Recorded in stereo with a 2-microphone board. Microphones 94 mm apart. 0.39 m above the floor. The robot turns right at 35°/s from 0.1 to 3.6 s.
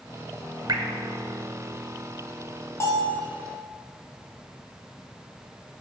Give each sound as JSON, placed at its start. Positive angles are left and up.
{"t": 0.7, "sound": "dripping", "side_deg": -45, "distance_m": 0.6}
{"t": 2.8, "sound": "a bell", "side_deg": 30, "distance_m": 1.5}